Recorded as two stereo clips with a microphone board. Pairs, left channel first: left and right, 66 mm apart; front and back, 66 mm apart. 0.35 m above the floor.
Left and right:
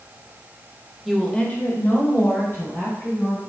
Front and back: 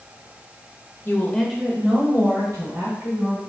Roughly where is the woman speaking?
Ahead.